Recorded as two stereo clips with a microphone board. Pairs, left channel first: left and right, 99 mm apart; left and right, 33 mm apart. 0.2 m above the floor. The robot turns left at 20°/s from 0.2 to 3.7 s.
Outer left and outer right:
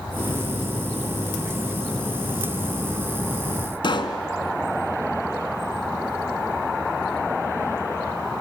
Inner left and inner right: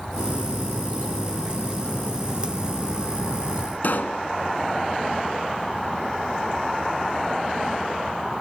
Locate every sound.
3.8 s a pop: 55° left (ahead or behind), 1.2 m